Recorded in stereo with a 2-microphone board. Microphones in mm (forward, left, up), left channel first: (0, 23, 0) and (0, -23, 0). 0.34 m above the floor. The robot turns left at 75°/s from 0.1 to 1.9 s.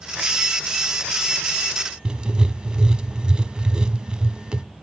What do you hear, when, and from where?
2.0 s writing: 20° right (ahead or behind), 0.6 m